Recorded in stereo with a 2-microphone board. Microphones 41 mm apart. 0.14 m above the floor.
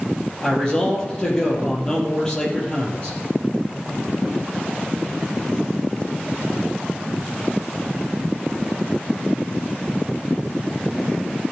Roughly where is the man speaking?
Centre.